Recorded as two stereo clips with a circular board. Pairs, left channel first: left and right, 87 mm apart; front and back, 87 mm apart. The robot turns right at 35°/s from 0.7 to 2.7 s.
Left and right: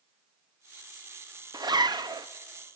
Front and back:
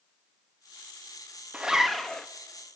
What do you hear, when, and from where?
1.5 s a zipper: 105° right, 0.7 m; by 2.3 s 80° right, 0.7 m